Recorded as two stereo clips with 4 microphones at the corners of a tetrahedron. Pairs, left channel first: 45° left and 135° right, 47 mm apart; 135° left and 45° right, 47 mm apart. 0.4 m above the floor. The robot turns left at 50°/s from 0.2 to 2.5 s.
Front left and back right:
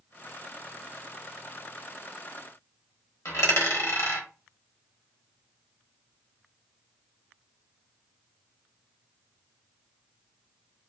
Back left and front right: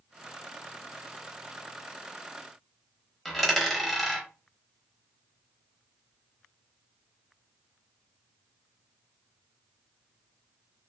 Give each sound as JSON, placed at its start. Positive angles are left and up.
{"t": 3.2, "sound": "a dropped coin", "azimuth_deg": 45, "distance_m": 0.9}